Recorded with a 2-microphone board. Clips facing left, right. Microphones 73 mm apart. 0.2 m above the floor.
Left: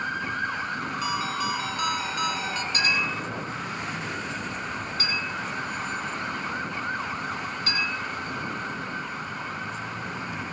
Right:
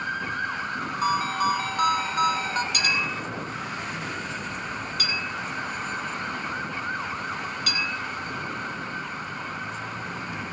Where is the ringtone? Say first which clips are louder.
Right 7 dB; 45° right (ahead or behind), 0.8 m.